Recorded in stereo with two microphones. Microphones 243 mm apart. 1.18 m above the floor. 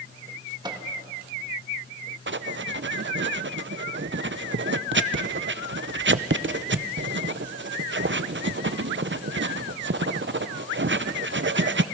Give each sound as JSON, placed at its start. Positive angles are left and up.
{"t": 0.6, "sound": "a microwave", "side_deg": -15, "distance_m": 1.6}
{"t": 2.3, "sound": "writing", "side_deg": -50, "distance_m": 0.5}